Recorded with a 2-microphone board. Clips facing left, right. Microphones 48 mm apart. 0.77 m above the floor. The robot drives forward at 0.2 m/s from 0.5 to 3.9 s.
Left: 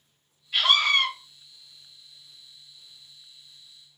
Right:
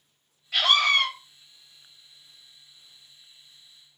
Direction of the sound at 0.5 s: 70° right (ahead or behind).